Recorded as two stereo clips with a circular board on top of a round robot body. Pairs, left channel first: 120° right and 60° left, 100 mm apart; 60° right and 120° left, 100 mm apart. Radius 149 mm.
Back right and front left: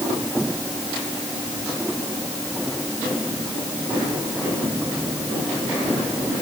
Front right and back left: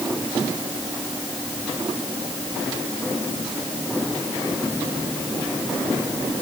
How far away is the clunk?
I don't hear a clunk.